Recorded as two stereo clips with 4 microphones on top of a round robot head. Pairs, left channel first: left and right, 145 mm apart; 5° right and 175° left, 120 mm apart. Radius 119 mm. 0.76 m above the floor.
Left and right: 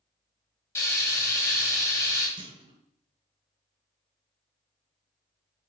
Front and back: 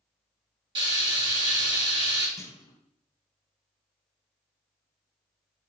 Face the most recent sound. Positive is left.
turn(degrees=-55)